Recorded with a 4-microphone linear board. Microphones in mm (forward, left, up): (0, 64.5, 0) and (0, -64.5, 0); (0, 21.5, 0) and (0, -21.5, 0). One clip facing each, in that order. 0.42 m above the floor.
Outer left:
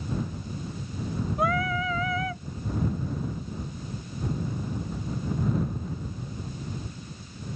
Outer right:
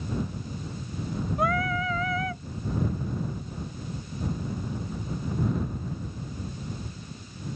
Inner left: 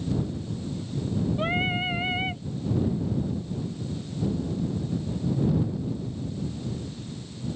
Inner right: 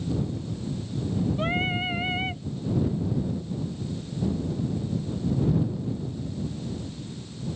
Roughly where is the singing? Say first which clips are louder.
Even, inner left 2 dB; centre.